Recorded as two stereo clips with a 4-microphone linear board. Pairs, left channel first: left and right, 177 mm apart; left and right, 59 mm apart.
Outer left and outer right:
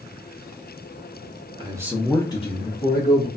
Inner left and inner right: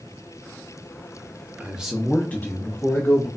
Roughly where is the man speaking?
Right.